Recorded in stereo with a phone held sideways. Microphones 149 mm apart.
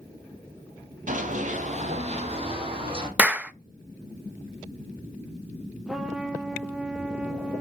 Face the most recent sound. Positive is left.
turn(degrees=-5)  # may be behind; listen again after turning